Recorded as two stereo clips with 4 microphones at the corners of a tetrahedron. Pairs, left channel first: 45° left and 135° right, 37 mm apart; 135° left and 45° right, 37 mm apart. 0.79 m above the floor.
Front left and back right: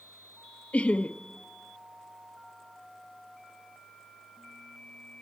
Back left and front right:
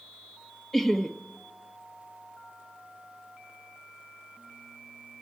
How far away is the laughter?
About 0.6 m.